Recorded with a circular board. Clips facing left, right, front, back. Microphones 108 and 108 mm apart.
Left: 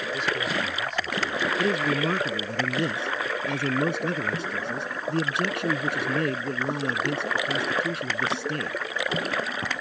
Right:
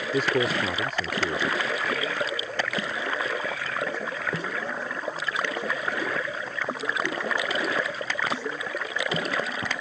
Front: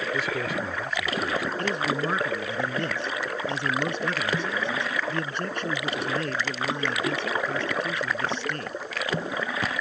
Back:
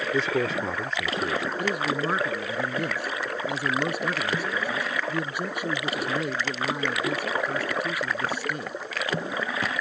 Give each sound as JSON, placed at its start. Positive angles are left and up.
{"t": 0.1, "sound": "a man speaking", "azimuth_deg": -125}
{"t": 1.6, "sound": "a man speaking", "azimuth_deg": 100}